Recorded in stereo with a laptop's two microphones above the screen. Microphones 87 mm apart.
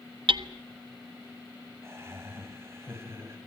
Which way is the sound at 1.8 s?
30° right (ahead or behind).